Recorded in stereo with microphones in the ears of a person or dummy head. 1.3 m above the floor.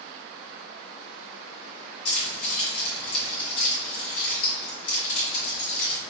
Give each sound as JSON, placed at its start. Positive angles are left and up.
{"t": 2.0, "sound": "keys jangling", "side_deg": 75, "distance_m": 1.7}